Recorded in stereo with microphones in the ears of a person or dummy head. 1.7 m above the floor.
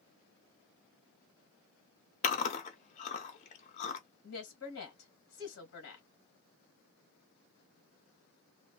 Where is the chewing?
40° left (ahead or behind), 0.7 m.